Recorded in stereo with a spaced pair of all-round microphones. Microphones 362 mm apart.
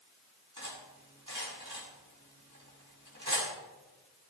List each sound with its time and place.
0.6 s cutlery clinking: 60° right (ahead or behind), 6.5 m